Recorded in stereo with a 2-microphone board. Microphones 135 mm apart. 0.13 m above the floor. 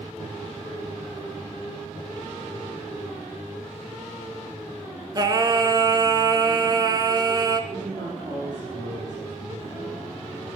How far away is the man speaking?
About 4 m.